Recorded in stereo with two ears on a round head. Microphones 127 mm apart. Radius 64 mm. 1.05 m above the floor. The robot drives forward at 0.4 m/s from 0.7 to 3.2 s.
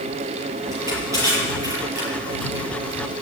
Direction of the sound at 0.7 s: 20° right (ahead or behind).